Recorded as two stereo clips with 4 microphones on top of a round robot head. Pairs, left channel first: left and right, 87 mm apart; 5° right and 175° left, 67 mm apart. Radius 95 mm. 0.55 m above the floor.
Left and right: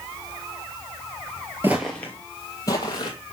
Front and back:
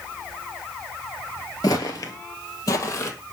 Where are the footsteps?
20° right, 0.5 m; by 3.1 s 35° left, 1.2 m.